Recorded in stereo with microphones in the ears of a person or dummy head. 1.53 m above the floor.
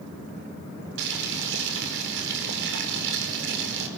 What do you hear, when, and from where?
1.0 s boiling: 65° right (ahead or behind), 5 m